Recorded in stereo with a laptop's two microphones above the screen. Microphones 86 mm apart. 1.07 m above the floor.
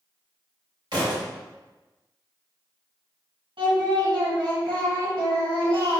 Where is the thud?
60° right (ahead or behind), 1.9 m.